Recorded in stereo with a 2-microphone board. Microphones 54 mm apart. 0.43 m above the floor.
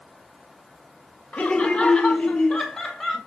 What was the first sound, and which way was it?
Laughter, 30° left (ahead or behind).